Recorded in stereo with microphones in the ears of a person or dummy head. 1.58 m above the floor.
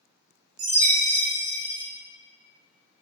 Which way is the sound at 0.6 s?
35° right (ahead or behind).